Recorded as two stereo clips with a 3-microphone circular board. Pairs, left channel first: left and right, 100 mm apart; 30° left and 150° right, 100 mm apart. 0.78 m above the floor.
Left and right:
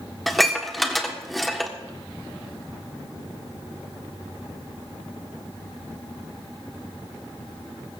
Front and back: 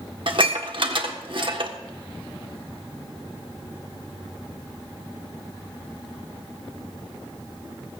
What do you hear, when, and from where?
0.3 s dishes clattering: straight behind, 1.4 m